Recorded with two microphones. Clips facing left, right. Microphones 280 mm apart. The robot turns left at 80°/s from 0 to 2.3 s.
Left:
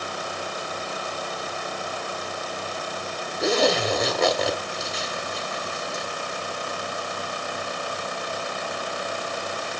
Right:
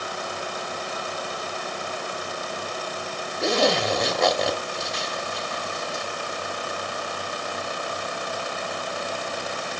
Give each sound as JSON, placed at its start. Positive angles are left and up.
{"t": 3.4, "sound": "a zipper", "side_deg": 0, "distance_m": 1.2}